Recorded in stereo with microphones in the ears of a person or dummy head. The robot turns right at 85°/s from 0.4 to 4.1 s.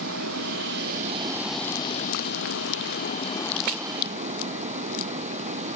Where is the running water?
95° right; by 5.8 s 140° right.